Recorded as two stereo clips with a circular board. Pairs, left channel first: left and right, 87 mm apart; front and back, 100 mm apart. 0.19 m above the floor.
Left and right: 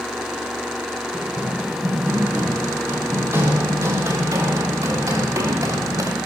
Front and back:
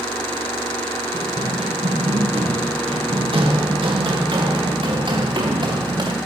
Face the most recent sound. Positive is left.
turn(degrees=-140)